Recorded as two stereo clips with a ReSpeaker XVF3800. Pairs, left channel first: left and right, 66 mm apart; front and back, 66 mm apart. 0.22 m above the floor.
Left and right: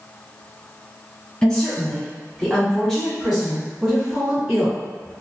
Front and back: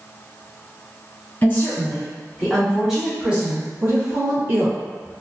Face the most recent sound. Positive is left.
turn(degrees=-165)